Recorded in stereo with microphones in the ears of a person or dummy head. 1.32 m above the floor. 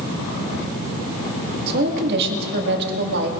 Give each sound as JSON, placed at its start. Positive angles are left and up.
{"t": 1.7, "sound": "a woman speaking", "side_deg": -55, "distance_m": 2.0}